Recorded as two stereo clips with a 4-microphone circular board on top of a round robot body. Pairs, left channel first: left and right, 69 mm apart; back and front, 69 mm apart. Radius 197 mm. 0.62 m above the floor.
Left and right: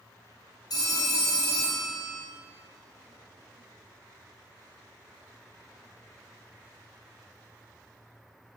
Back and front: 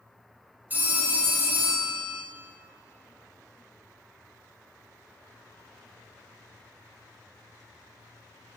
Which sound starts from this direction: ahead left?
A phone ringing, at 0.7 s.